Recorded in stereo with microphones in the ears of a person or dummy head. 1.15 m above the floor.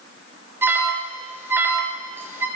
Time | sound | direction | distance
0.6 | an alarm | 10° right (ahead or behind) | 5 m